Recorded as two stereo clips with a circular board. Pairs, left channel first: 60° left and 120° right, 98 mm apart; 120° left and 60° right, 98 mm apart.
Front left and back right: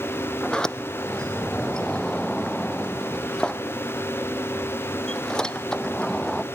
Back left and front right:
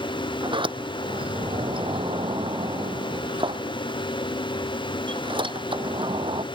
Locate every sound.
0.4 s a sliding door: 25° right